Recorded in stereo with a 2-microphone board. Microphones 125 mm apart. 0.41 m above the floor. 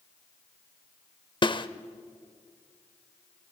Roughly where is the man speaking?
I don't hear a man speaking.